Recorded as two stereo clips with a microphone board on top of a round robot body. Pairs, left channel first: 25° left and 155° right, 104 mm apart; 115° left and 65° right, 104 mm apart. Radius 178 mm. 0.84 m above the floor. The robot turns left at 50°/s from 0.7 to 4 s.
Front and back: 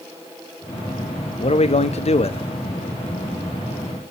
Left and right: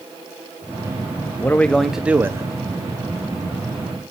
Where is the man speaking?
45° left, 1.4 m; by 2.5 s 10° right, 1.4 m.